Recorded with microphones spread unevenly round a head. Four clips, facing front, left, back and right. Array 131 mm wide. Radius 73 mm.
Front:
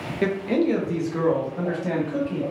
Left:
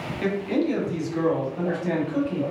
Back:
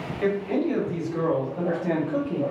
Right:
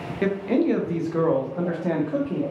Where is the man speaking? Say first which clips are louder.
Right 3 dB, front 2 dB; 35° right, 0.8 m; by 2.4 s 125° right, 1.1 m.